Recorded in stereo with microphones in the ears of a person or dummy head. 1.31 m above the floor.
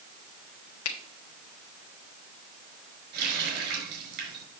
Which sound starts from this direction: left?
A finger snap, at 0.8 s.